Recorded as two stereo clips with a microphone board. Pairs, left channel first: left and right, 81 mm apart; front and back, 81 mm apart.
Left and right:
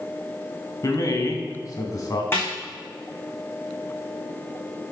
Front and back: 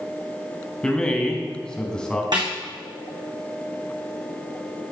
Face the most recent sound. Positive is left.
turn(degrees=150)